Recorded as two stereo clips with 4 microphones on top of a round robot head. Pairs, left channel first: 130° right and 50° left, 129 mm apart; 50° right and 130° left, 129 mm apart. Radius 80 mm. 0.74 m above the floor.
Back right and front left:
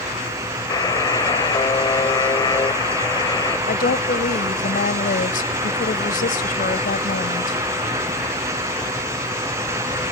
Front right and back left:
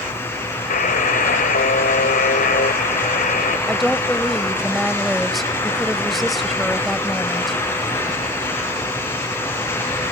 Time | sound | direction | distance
0.7 | a buzzer | 70° right | ?
3.7 | a woman speaking | 140° right | ?